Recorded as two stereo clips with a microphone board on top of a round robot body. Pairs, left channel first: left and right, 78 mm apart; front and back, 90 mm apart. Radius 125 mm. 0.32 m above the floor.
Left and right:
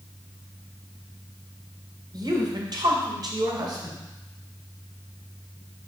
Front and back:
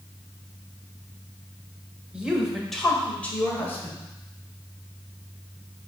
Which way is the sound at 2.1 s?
105° right.